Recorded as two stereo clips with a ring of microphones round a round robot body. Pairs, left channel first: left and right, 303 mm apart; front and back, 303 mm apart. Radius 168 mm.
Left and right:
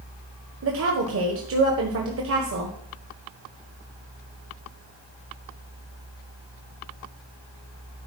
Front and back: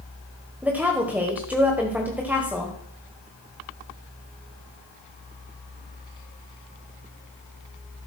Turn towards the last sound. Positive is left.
turn(degrees=-100)